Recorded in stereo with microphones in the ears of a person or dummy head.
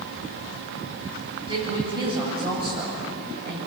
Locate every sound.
1.5 s a woman speaking: 25° right (ahead or behind), 8 m